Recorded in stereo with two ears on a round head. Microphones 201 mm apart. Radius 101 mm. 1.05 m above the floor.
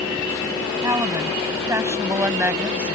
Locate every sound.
0.8 s a woman speaking: 15° right (ahead or behind); by 3.0 s 10° right (ahead or behind)